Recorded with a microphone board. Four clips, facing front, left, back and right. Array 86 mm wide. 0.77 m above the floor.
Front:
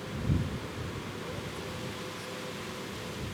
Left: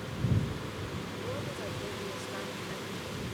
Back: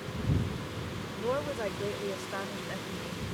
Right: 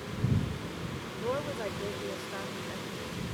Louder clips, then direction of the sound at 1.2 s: Right 8 dB, back 8 dB; 150° right.